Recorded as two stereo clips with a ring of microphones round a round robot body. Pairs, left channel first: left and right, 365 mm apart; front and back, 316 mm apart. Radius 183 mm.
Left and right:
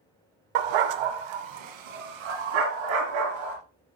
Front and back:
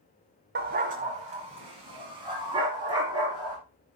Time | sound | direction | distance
0.6 | a dog barking | 115° right | 0.7 m